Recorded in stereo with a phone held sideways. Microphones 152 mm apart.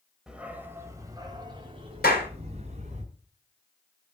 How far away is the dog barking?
About 2 m.